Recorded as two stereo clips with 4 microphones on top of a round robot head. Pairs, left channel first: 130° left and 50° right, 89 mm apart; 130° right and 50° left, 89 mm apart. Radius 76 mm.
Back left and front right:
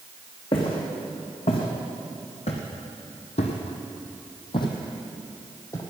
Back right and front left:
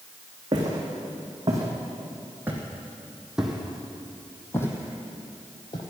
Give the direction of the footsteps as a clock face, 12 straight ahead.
9 o'clock.